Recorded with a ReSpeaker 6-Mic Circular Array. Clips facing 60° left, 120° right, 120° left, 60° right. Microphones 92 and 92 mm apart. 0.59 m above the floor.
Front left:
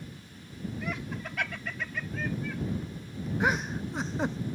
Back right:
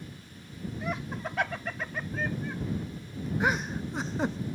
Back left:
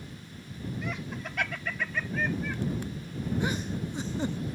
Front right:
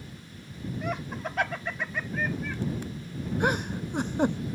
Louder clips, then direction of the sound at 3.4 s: Even, front right 8 dB; 30° right.